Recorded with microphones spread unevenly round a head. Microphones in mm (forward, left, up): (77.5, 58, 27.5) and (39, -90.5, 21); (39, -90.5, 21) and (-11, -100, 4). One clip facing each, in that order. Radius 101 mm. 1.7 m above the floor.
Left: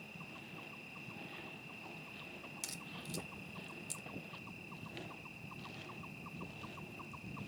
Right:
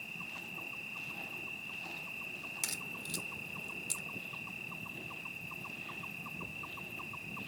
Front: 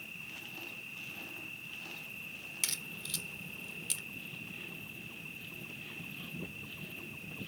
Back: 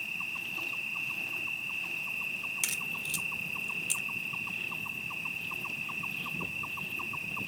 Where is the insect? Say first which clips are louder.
Right 2 dB, back 9 dB; 150° right.